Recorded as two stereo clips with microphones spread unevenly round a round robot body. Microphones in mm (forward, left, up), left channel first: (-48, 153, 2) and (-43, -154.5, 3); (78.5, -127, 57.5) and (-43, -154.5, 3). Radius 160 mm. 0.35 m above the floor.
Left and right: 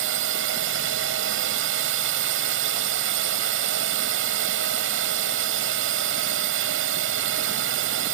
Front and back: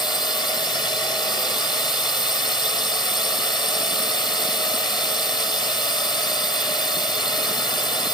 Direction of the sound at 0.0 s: 55° right.